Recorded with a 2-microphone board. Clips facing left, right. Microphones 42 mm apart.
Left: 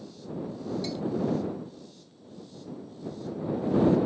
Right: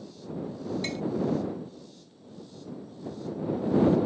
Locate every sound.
0.8 s tapping: 55° right (ahead or behind)